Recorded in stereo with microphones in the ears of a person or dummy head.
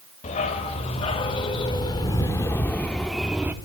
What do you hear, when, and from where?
0.2 s a dog barking: 35° left (ahead or behind), 3.5 m; by 3.5 s 10° right (ahead or behind), 1.5 m